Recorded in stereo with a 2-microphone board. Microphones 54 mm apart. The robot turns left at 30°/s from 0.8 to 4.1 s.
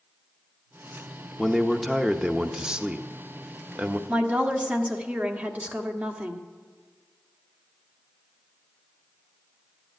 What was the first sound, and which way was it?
A man speaking, 10° left.